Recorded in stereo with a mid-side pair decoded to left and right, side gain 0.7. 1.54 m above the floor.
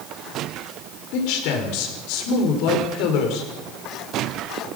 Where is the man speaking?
65° left, 6 m.